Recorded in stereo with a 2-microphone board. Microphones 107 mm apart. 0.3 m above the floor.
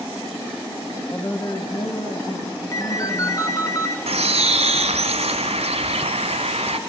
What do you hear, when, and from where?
1.1 s a woman speaking: 20° left (ahead or behind), 1.2 m; by 3.7 s 75° left (ahead or behind), 4 m
2.7 s a ringtone: 30° left (ahead or behind), 2.0 m
4.1 s a bird: 75° right (ahead or behind), 0.8 m